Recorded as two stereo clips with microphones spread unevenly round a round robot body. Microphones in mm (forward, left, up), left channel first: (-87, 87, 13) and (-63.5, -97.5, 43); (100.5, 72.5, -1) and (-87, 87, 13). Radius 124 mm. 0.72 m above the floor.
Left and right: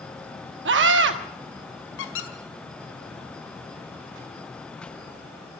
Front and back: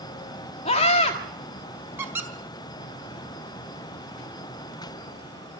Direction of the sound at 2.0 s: 95° left.